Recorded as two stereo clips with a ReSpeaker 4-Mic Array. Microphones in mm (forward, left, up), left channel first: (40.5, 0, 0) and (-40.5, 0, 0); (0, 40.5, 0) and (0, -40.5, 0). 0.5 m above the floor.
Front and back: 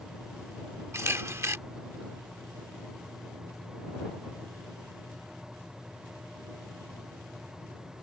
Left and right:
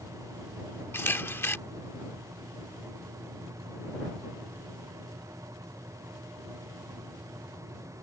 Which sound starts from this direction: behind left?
A camera shutter, at 0.9 s.